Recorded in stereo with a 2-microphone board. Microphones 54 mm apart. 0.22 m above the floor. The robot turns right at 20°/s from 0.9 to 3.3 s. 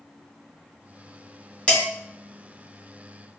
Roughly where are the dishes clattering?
Left.